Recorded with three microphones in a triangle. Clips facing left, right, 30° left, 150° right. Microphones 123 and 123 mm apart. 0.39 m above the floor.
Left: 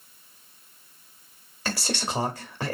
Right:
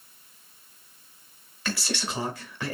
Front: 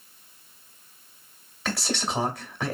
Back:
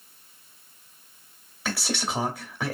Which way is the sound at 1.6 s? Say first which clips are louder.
Left 1 dB, front 1 dB; 125° left.